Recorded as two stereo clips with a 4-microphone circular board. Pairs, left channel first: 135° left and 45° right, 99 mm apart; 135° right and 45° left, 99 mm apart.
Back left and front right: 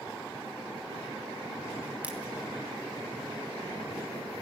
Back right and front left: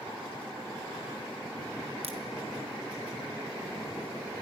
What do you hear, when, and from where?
2.0 s a crack: 30° left, 2.5 m